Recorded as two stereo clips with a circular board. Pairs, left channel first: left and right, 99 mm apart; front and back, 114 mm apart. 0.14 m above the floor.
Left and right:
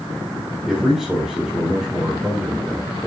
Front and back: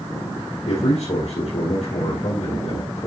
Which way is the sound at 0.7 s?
5° right.